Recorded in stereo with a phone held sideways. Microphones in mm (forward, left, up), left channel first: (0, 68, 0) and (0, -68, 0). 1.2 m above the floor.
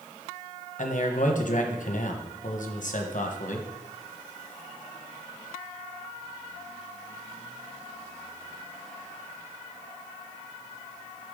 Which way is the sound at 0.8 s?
65° left (ahead or behind).